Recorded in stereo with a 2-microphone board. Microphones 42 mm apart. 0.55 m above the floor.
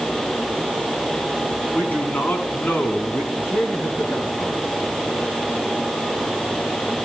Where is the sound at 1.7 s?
45° left (ahead or behind), 5.5 m.